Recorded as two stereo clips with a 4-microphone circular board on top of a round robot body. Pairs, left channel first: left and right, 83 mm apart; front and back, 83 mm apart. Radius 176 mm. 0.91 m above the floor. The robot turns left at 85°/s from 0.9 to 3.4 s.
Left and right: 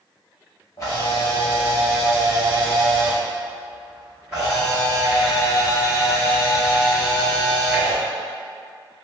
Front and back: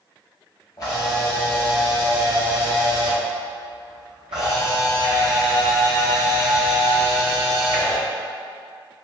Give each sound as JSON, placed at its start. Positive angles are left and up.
{"t": 0.8, "sound": "a camera shutter", "azimuth_deg": 45, "distance_m": 0.6}